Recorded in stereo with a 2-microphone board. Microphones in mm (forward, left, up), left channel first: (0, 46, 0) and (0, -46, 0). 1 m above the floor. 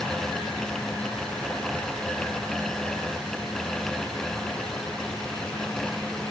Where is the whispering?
I don't hear whispering.